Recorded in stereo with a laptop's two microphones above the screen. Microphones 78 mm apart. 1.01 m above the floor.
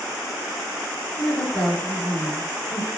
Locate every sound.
1.2 s a woman speaking: 25° left (ahead or behind), 1.6 m